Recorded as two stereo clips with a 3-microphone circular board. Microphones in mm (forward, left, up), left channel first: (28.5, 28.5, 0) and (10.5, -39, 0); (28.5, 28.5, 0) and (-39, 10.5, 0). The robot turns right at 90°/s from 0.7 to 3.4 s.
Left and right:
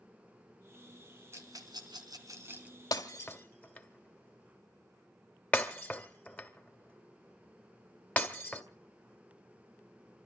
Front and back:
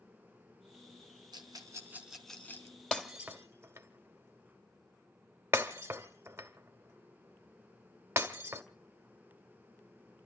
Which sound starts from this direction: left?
Breaking glass, at 2.9 s.